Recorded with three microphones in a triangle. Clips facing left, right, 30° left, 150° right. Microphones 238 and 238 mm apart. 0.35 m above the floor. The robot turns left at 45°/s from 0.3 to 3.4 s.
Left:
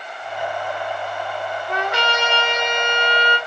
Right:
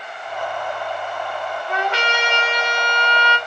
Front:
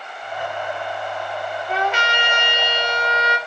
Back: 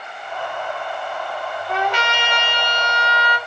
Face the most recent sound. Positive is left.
turn(degrees=45)